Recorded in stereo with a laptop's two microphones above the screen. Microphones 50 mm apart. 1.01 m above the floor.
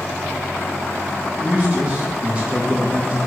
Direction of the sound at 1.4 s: 25° right (ahead or behind).